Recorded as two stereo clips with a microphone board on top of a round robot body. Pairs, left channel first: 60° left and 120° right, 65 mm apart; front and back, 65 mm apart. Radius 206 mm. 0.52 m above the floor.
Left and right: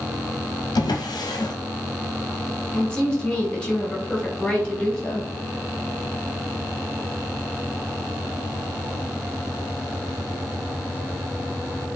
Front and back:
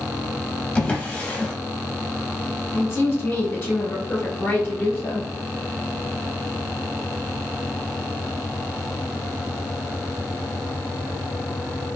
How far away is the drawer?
About 0.7 m.